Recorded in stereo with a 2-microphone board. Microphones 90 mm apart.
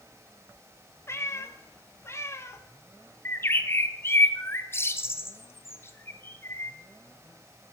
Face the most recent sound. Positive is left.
turn(degrees=30)  # may be behind; listen again after turning